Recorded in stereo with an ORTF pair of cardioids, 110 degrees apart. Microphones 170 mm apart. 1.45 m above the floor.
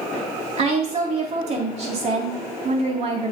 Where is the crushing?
I don't hear crushing.